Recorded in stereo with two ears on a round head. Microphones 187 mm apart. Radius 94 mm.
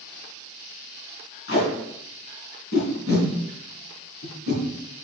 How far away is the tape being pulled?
About 3 m.